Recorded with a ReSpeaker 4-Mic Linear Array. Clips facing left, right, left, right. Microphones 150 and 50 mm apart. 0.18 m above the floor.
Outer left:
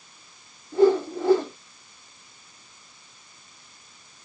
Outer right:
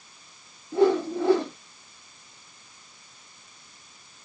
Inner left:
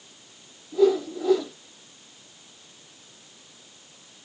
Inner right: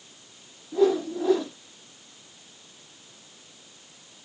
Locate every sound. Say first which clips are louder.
0.7 s a whoosh: outer left 2 dB, inner left 1 dB; 20° right (ahead or behind), 4.5 m